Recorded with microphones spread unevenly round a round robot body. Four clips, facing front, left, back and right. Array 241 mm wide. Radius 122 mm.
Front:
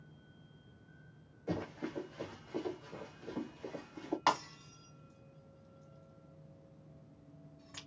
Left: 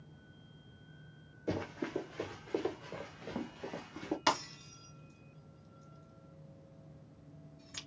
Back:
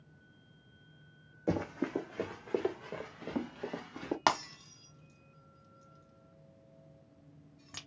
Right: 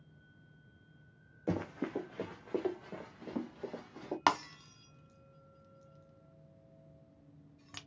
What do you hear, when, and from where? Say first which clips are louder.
1.5 s running footsteps: right 1 dB, back 6 dB; 160° right, 1.6 m; by 4.2 s 165° left, 3 m
4.3 s breaking glass: right 4 dB, back 2 dB; 145° right, 1.4 m